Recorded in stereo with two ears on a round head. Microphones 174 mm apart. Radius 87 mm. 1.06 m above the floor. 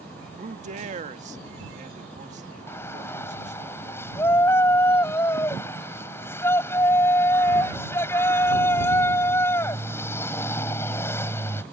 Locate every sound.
0.4 s a man speaking: 40° right (ahead or behind)
2.7 s a shout: 10° left (ahead or behind)